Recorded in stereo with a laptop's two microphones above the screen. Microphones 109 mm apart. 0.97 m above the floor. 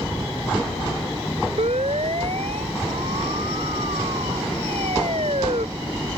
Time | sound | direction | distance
1.6 | a siren | 75° right (ahead or behind) | ?